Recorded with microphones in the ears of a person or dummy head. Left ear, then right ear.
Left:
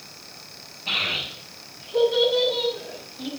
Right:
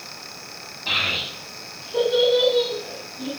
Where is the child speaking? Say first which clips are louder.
Right 2 dB; 45° right (ahead or behind), 5.5 m; by 3.3 s 5° right (ahead or behind), 4 m.